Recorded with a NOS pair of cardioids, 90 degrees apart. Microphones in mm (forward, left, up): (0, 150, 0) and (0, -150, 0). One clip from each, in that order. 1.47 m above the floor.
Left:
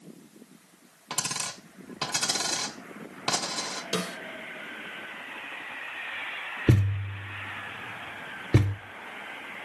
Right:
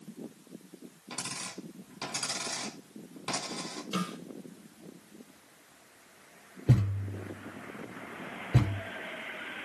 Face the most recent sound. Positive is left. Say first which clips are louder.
# left 3 dB
turn(degrees=70)